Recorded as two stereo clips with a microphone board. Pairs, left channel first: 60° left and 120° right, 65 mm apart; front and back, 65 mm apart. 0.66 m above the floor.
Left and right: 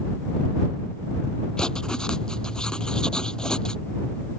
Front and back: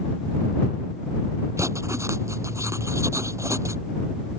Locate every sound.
1.6 s writing: 140° left